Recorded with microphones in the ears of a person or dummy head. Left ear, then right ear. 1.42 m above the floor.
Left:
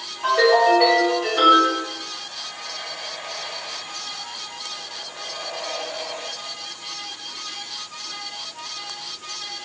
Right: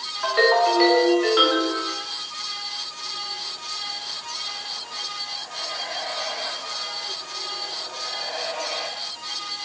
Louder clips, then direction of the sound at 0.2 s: Left 2 dB; 55° right (ahead or behind).